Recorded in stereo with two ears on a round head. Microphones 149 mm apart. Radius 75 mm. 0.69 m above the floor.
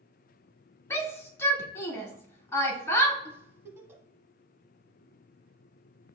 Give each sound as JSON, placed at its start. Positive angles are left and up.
{"t": 0.9, "sound": "a shout", "side_deg": 15, "distance_m": 1.1}
{"t": 3.2, "sound": "a giggle", "side_deg": -15, "distance_m": 0.8}